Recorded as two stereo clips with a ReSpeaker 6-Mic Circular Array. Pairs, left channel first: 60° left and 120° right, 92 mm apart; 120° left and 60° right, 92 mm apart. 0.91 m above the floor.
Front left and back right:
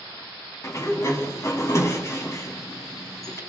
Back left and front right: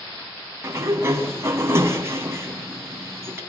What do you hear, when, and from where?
0.6 s a sliding door: straight ahead, 3.5 m